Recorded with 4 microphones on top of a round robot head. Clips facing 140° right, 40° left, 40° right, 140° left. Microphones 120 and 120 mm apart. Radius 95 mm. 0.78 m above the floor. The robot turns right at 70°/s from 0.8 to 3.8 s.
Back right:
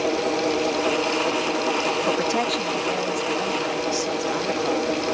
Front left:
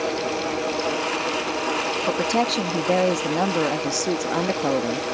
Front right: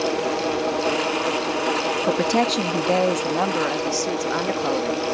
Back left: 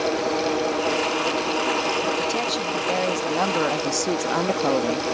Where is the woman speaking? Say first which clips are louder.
Front left 4 dB, front right 4 dB; 45° right; by 5.1 s 75° left.